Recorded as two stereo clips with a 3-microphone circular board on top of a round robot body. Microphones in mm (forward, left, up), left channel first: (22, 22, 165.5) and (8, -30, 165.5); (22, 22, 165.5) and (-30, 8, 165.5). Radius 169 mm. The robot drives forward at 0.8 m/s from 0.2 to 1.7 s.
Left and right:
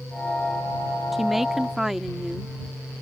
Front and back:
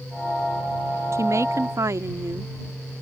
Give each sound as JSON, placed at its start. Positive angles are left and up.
{"t": 1.1, "sound": "a woman speaking", "azimuth_deg": 170}